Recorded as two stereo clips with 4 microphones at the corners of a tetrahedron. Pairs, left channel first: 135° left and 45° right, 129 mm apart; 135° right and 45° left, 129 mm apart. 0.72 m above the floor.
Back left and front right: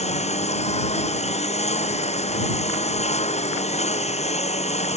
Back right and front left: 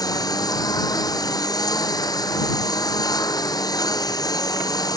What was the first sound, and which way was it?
A lawn mower, 165° left.